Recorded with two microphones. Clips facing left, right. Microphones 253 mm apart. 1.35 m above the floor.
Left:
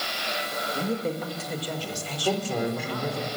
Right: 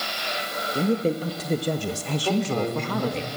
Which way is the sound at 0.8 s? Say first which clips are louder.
Right 6 dB; 25° right (ahead or behind).